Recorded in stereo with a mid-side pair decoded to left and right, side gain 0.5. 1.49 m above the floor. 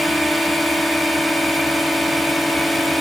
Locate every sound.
0.0 s a drone: 5° left